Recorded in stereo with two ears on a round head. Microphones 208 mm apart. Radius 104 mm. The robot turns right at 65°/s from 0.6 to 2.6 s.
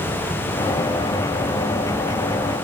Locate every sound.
Only background noise.